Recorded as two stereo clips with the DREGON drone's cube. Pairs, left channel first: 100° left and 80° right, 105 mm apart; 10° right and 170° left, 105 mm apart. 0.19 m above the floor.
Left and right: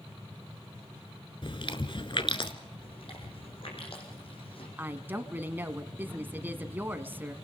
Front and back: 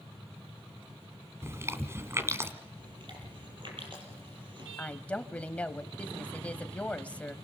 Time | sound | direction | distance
1.4 | chewing | 110° left | 1.4 m
2.8 | chewing | 130° left | 6 m
4.8 | a woman speaking | 65° right | 1.0 m